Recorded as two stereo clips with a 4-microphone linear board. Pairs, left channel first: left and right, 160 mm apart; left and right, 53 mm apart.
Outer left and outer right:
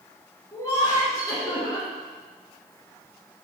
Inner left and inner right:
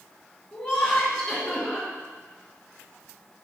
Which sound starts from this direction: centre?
Laughter, at 0.5 s.